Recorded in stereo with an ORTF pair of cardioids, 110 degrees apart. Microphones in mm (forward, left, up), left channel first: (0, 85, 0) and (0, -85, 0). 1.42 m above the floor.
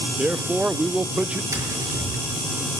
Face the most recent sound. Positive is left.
turn(degrees=-20)